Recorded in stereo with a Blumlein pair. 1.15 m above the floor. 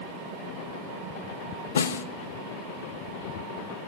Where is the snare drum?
70° left, 1.1 m.